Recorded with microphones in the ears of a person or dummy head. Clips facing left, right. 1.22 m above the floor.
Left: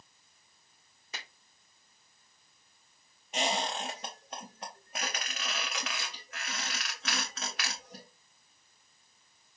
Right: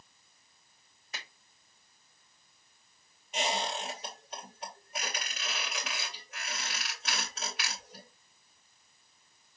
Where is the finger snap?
65° left (ahead or behind), 2.5 m.